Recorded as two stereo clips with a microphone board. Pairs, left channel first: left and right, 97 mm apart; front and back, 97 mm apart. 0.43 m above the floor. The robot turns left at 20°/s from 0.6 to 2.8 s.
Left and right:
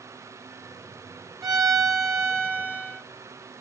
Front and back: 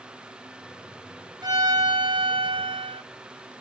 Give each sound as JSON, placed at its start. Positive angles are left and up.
{"t": 1.4, "sound": "a violin", "azimuth_deg": -135, "distance_m": 1.7}